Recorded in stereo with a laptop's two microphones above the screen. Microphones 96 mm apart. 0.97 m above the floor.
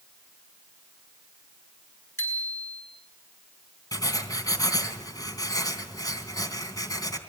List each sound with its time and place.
2.2 s a bicycle bell: 25° left (ahead or behind), 8.5 m
3.9 s writing: 40° left (ahead or behind), 3.5 m